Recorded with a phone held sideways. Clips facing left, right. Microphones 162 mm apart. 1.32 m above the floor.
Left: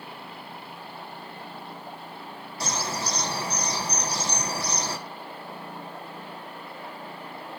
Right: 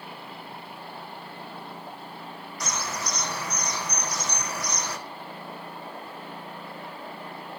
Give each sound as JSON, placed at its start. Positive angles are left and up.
{"t": 2.6, "sound": "a bird", "side_deg": 30, "distance_m": 1.3}